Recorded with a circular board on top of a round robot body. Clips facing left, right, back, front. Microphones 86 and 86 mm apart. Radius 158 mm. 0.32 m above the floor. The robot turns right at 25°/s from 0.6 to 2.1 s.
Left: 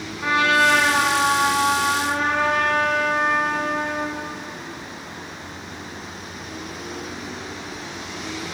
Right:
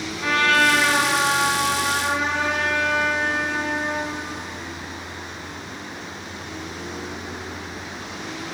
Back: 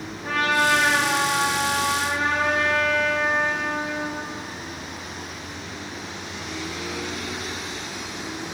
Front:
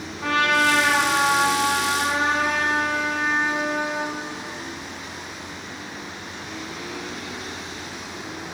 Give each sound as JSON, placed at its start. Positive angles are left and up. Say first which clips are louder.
{"t": 0.2, "sound": "a trumpet", "louder": "left 1 dB, front 2 dB", "azimuth_deg": 15, "distance_m": 1.8}